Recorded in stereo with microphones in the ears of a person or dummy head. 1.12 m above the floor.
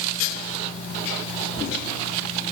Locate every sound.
Only background noise.